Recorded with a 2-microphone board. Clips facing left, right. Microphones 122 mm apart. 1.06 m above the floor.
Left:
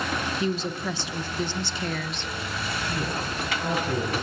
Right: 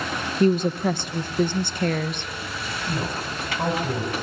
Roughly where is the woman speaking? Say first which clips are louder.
Right 13 dB; right.